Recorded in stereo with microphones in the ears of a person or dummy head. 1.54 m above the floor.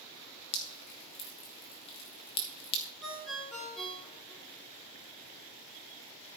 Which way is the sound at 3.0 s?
Centre (ahead or behind).